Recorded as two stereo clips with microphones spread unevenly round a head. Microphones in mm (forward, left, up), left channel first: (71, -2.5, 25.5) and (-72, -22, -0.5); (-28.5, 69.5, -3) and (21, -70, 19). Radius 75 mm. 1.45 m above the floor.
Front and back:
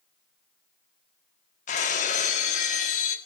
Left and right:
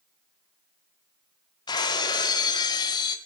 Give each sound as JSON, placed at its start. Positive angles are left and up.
{"t": 1.7, "sound": "breaking glass", "azimuth_deg": 45, "distance_m": 1.8}